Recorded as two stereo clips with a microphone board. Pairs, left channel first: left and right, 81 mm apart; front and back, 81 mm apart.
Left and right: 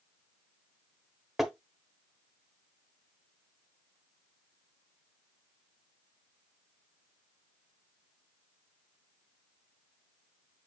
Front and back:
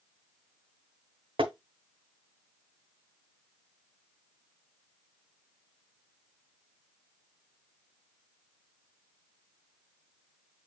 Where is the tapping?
175° right, 0.9 m.